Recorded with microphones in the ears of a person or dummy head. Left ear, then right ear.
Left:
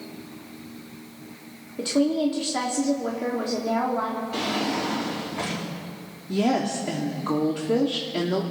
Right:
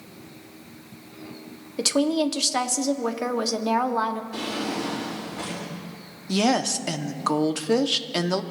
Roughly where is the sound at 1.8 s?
Right.